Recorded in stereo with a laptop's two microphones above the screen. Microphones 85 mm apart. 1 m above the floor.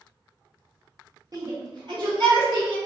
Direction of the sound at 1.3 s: 45° right (ahead or behind).